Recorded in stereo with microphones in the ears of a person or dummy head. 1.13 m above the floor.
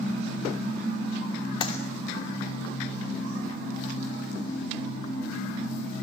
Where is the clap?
30° left (ahead or behind), 3 m.